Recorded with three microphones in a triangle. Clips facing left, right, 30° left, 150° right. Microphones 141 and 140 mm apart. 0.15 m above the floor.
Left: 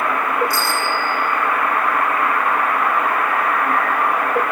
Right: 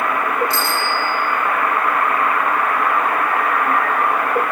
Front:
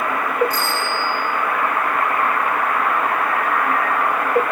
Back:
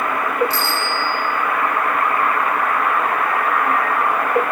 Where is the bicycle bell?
155° right, 5.5 m.